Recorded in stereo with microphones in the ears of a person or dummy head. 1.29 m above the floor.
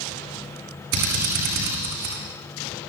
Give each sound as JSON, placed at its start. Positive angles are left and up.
{"t": 0.9, "sound": "a drill", "side_deg": -70, "distance_m": 9.5}